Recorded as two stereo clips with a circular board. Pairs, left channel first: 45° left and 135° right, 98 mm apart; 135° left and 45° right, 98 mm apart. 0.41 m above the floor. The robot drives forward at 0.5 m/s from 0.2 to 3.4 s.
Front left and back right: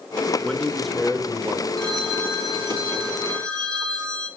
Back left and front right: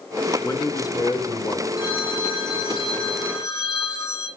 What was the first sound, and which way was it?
A man speaking, 115° left.